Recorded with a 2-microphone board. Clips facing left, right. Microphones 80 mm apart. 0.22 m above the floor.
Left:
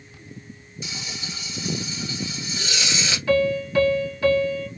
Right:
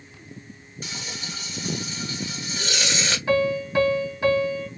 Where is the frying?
45° right (ahead or behind), 1.2 m.